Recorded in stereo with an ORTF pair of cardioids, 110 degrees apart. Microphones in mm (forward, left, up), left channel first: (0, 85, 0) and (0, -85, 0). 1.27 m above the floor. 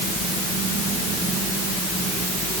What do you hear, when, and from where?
Only background noise.